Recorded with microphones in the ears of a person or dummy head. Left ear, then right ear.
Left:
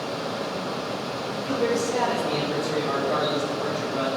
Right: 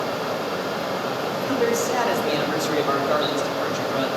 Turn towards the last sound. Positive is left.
turn(degrees=-50)  # may be behind; listen again after turning